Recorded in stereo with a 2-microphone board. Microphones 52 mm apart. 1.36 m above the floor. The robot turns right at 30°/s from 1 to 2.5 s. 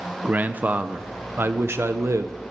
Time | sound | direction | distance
0.2 | a man speaking | 145° right | 0.8 m